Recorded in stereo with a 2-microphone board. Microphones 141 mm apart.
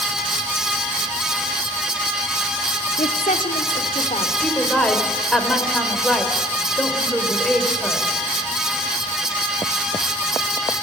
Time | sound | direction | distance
3.0 | a woman speaking | 75° left (ahead or behind) | 1.7 m
4.4 | a woman speaking | 5° left (ahead or behind) | 3 m